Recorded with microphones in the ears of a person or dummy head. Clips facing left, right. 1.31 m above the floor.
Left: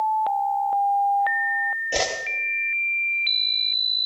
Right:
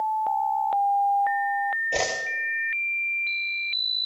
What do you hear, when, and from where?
1.9 s a whoosh: 5° left (ahead or behind), 1.1 m